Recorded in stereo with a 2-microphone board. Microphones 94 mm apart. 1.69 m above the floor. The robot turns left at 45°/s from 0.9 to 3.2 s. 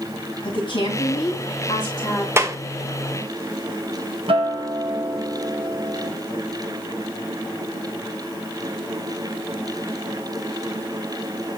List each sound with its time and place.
0.4 s a woman speaking: 100° left, 3.5 m; by 2.3 s 40° left, 3.5 m
2.4 s a clap: 25° right (ahead or behind), 0.9 m; by 2.6 s 35° right (ahead or behind), 0.9 m
4.3 s a guitar: 80° right, 1.5 m